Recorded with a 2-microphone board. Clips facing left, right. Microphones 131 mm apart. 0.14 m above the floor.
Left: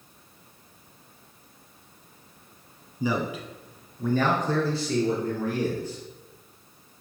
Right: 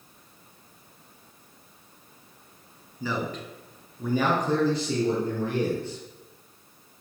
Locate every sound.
3.0 s a man speaking: 15° left (ahead or behind), 1.3 m; by 6.0 s 30° right (ahead or behind), 3 m